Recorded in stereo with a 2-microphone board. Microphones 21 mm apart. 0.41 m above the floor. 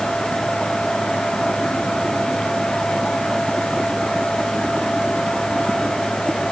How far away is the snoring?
No snoring in this recording.